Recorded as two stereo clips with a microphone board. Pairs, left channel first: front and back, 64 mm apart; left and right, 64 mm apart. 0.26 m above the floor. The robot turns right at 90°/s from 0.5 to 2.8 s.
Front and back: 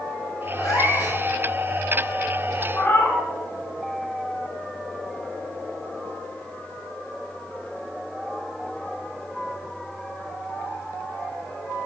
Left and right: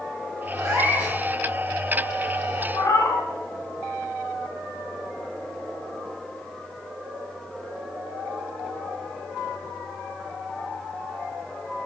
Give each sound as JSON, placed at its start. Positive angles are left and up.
{"t": 0.6, "sound": "a cat meowing", "azimuth_deg": -45, "distance_m": 3.0}
{"t": 2.7, "sound": "a cat meowing", "azimuth_deg": 55, "distance_m": 1.1}